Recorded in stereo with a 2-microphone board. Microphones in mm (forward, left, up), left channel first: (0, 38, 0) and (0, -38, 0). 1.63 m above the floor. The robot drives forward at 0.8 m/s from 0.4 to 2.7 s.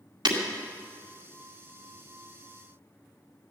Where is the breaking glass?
75° right (ahead or behind), 2 m.